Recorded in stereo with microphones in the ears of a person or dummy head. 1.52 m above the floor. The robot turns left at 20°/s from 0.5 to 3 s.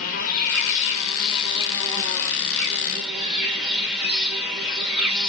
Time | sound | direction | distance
0.0 | an insect | 45° left | 1.3 m